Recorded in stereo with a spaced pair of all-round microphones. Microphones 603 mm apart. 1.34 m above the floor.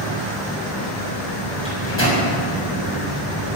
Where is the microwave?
20° left (ahead or behind), 6.5 m.